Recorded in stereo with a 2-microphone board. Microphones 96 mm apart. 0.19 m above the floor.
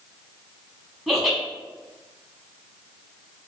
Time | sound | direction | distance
1.1 | laughter | centre (ahead or behind) | 1.2 m